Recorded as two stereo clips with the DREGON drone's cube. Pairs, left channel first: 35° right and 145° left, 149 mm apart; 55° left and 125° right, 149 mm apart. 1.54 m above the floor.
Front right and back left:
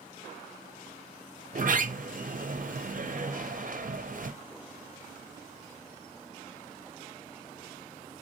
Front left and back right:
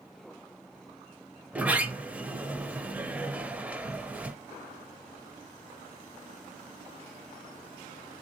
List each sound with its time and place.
1.5 s a sliding door: 155° left, 0.5 m